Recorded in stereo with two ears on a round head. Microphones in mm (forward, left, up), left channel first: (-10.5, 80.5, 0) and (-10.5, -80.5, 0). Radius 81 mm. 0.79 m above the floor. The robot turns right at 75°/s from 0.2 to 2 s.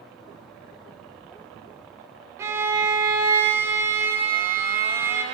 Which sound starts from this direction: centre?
A violin, at 2.4 s.